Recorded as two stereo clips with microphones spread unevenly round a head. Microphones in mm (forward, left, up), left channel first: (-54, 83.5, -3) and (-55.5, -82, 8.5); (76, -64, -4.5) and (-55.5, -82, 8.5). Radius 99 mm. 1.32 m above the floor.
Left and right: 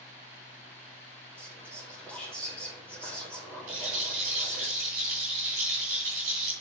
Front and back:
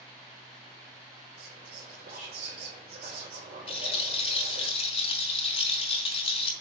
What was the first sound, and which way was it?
Whispering, 170° left.